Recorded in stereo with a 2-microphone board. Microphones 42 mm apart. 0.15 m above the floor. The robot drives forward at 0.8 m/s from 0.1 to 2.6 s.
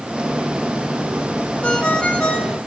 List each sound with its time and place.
1.6 s a ringtone: 25° left (ahead or behind), 1.4 m; by 2.6 s 30° left (ahead or behind), 1.1 m